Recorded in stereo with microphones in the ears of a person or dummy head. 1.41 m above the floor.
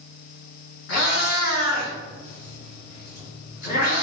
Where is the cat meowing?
55° left (ahead or behind), 1.9 m.